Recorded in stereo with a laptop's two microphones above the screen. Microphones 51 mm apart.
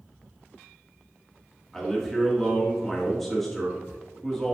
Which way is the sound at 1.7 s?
5° left (ahead or behind).